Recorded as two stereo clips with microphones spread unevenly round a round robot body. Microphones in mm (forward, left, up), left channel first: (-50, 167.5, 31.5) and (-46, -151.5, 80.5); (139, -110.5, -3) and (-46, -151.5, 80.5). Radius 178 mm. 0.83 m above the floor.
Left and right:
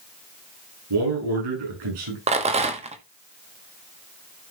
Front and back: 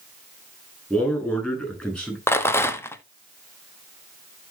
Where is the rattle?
15° right, 1.2 m.